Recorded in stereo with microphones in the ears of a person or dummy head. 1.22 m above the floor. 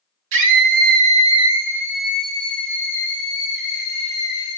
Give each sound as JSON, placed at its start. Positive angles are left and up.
{"t": 0.3, "sound": "a scream", "side_deg": -70, "distance_m": 1.8}